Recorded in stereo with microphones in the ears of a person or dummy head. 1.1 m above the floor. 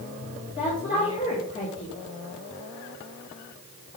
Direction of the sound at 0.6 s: 30° left (ahead or behind).